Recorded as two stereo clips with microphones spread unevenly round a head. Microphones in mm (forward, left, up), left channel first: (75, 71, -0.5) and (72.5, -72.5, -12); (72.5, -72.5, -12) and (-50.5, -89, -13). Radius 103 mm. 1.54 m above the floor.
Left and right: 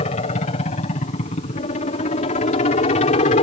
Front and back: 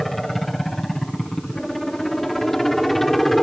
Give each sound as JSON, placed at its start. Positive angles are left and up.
{"t": 0.0, "sound": "a helicopter", "azimuth_deg": 95}